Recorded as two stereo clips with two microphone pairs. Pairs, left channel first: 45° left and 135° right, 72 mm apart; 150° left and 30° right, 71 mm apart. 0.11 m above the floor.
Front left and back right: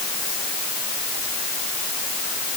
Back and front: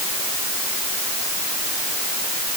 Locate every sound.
Only background noise.